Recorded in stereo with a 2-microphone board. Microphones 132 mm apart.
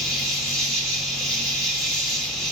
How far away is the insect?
About 1.5 m.